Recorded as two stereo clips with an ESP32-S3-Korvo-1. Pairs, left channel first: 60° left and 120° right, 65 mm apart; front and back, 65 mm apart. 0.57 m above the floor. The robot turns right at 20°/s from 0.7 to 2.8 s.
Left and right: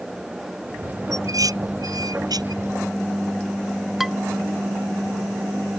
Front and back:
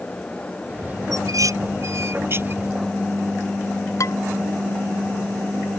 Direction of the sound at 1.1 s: 155° right.